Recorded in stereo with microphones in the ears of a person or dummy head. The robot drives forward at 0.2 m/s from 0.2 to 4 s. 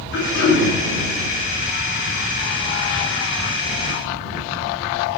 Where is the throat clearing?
65° left (ahead or behind), 0.8 m; by 0.7 s 55° left (ahead or behind), 0.9 m.